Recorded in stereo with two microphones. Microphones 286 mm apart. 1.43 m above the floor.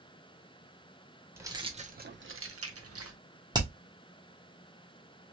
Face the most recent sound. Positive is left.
turn(degrees=-15)  # may be behind; listen again after turning